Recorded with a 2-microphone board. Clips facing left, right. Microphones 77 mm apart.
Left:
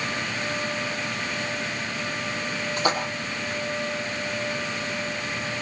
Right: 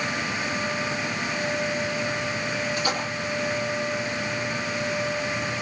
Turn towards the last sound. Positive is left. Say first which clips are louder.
# left 6 dB
turn(degrees=45)  # may be behind; listen again after turning